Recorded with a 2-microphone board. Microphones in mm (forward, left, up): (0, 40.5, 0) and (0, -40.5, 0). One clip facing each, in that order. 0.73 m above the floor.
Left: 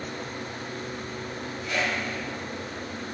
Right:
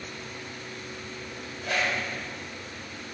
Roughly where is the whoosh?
Right.